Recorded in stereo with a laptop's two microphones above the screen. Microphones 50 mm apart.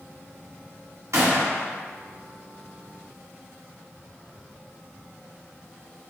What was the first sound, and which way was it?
A gunshot, 75° right (ahead or behind).